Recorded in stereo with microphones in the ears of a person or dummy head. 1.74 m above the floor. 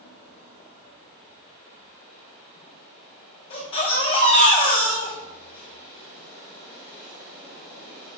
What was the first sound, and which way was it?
A baby crying, 25° left (ahead or behind).